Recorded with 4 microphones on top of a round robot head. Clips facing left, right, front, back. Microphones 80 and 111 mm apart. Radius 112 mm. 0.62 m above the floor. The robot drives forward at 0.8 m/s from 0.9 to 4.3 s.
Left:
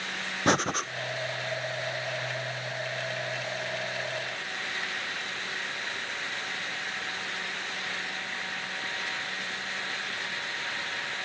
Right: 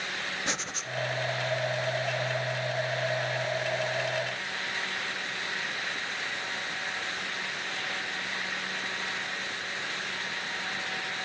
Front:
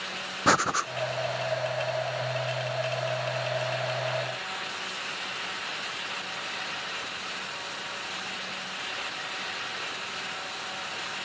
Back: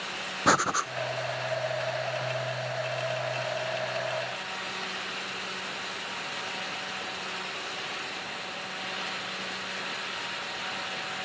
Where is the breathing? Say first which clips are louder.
Left 10 dB, even; 90° left, 0.9 m.